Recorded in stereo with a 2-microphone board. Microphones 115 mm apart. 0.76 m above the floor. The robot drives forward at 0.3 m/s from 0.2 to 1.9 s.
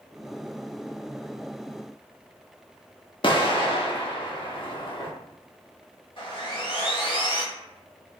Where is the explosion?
45° left (ahead or behind), 1.1 m.